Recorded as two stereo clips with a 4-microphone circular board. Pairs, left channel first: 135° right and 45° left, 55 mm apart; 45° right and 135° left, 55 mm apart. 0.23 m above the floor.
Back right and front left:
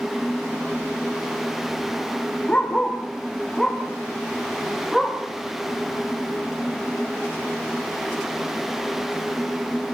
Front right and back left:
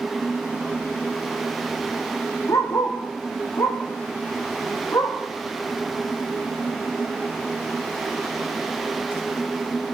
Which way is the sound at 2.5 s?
65° right.